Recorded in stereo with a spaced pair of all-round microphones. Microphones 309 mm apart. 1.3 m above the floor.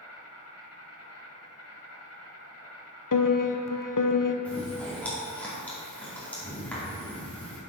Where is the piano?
85° left, 0.6 m.